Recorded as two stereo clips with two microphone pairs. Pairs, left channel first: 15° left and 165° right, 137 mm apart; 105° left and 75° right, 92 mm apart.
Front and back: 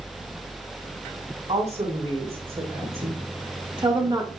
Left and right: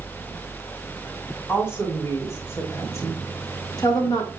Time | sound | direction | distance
1.5 | a woman speaking | 165° left | 4 m